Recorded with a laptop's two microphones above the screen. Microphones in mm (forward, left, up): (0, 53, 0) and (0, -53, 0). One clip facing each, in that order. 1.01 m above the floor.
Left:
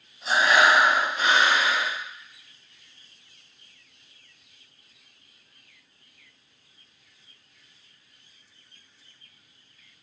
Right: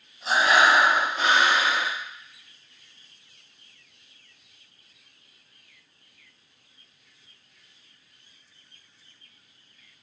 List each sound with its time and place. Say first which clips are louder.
0.2 s breathing: even; 40° right (ahead or behind), 1.2 m